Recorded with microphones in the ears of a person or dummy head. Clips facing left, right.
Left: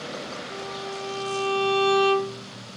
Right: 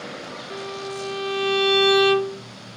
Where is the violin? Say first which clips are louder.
Right 6 dB; 20° right (ahead or behind), 0.8 m.